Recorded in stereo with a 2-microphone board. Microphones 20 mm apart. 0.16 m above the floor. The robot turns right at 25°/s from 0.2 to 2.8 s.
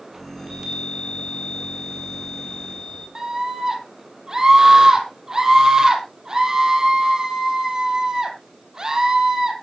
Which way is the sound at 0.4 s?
150° right.